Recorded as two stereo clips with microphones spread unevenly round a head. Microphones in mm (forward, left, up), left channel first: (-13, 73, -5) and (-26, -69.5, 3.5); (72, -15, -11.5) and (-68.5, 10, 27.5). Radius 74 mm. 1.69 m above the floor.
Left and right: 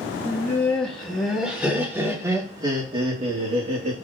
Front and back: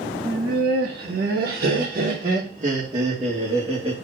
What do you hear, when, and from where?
0.2 s laughter: 155° left, 2.5 m; by 4.0 s 120° right, 2.0 m